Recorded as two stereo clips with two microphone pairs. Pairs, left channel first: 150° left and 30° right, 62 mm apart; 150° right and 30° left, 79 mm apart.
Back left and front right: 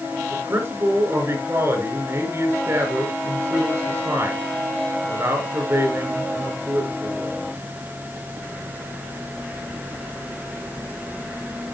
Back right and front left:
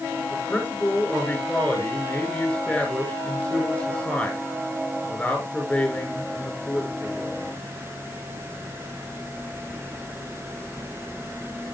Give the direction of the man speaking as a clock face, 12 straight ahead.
3 o'clock.